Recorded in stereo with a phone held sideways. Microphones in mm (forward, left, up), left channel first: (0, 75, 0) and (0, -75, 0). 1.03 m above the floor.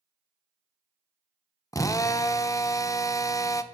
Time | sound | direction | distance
1.7 | a drill | 20° left (ahead or behind) | 0.7 m